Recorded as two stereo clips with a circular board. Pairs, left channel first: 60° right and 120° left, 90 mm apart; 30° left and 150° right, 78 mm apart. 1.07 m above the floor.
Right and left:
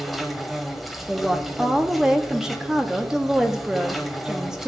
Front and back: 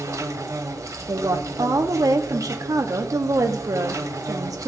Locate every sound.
0.0 s an insect: 150° right, 1.0 m
1.1 s a woman speaking: 160° right, 0.8 m